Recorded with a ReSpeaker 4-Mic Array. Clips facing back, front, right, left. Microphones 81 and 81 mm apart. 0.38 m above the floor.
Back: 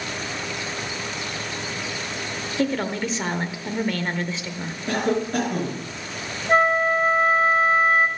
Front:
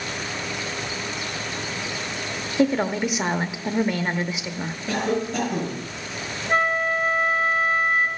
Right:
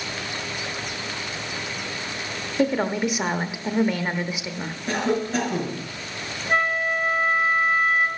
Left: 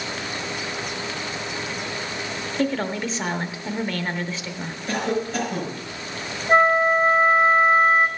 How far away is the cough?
About 5.5 m.